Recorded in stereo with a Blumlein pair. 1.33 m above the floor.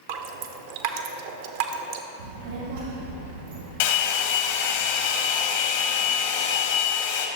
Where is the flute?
I don't hear a flute.